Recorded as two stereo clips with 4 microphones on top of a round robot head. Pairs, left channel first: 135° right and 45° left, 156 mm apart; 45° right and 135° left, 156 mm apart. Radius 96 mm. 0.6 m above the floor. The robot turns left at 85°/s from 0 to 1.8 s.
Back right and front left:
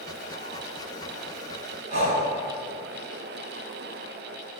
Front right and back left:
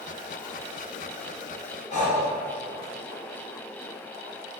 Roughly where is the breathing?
Ahead.